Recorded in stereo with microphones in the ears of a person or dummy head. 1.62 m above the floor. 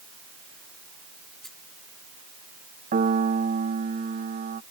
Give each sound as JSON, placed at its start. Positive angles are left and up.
{"t": 1.4, "sound": "a rattle", "side_deg": 5}
{"t": 2.9, "sound": "a piano", "side_deg": -45}